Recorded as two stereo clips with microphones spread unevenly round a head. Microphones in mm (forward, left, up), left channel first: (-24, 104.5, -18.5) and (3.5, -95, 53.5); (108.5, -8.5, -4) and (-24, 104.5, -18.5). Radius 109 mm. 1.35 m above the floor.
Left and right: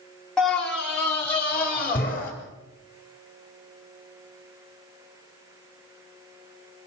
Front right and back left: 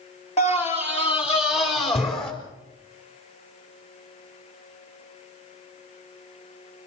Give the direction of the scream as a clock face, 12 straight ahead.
12 o'clock.